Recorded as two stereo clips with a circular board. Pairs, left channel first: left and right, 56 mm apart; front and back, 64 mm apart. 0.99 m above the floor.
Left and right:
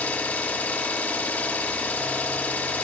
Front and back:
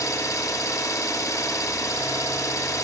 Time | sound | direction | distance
0.0 | an engine running | 30° left | 0.9 m